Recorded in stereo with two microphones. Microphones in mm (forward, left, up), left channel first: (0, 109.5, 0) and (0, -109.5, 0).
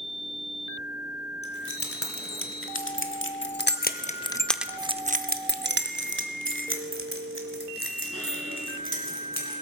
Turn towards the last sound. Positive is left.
turn(degrees=-75)  # may be behind; listen again after turning